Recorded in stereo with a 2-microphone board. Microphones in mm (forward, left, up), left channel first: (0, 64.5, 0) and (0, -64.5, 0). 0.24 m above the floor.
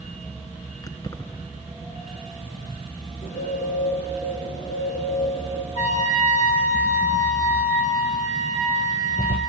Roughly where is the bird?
Left.